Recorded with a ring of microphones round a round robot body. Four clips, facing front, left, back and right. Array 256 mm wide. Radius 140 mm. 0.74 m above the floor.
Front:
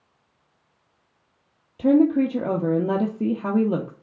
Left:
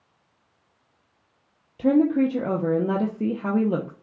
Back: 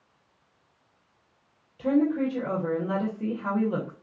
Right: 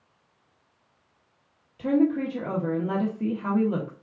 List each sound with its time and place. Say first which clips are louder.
1.8 s a woman speaking: left 4 dB, front 6 dB; 40° left, 0.8 m